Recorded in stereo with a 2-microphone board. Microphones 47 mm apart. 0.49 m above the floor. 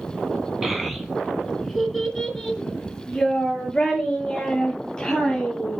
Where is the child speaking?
5° right (ahead or behind), 2 m; by 5.8 s 15° left (ahead or behind), 7 m.